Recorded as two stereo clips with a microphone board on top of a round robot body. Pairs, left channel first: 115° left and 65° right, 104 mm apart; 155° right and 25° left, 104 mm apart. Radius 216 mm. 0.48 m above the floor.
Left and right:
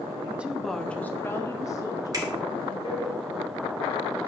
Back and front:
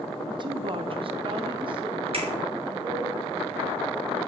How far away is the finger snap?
About 1.6 m.